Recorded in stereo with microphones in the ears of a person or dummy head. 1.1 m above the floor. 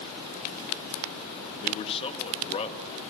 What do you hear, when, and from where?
1.6 s a man speaking: 25° left (ahead or behind), 1.8 m